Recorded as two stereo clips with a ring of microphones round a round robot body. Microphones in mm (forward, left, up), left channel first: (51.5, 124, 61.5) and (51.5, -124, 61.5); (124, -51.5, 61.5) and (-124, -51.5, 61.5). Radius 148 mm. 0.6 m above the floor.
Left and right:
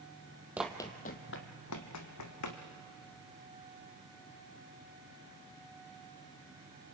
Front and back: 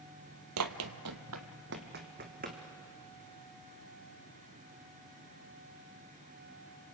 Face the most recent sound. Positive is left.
turn(degrees=115)